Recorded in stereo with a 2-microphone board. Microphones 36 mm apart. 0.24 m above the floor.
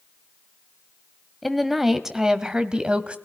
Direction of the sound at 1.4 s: Centre (ahead or behind).